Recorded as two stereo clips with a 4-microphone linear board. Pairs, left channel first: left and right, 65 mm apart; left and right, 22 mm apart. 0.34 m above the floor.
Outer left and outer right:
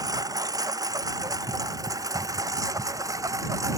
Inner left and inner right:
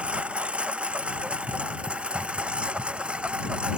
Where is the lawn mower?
85° right; by 3.8 s 65° right (ahead or behind).